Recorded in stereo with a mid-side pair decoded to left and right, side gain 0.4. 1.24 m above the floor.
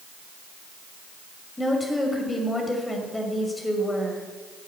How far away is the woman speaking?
About 6 m.